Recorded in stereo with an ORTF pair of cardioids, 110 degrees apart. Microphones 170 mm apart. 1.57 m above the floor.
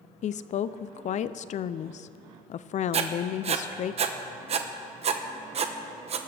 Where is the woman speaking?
45° left, 0.5 m.